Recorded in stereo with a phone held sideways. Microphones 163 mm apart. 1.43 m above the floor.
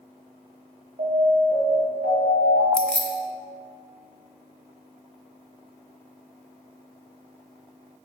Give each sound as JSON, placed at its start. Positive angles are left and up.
{"t": 1.0, "sound": "an alarm", "side_deg": -65, "distance_m": 1.7}
{"t": 2.7, "sound": "keys jangling", "side_deg": 5, "distance_m": 0.7}